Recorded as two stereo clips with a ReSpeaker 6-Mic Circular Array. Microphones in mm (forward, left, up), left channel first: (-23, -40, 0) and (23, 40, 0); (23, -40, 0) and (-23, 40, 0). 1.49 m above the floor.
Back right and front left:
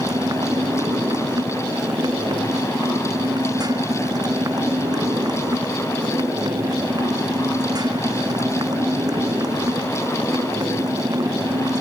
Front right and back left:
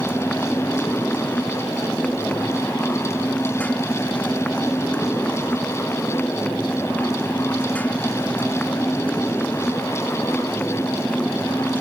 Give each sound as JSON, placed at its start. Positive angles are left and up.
{"t": 0.0, "sound": "a motorcycle", "azimuth_deg": 15}